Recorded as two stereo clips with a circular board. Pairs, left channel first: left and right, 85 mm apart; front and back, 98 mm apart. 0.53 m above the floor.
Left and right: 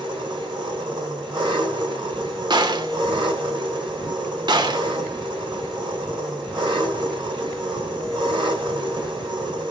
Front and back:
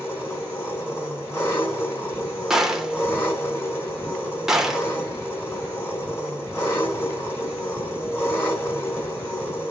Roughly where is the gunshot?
Right.